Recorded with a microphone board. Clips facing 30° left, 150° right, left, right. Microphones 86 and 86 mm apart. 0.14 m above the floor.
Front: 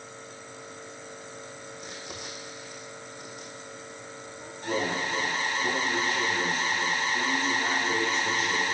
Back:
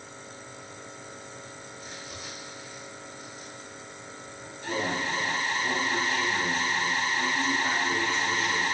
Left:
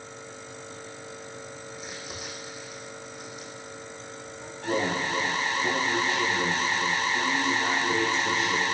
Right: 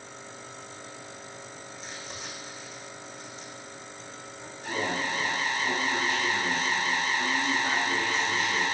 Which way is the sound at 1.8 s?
10° left.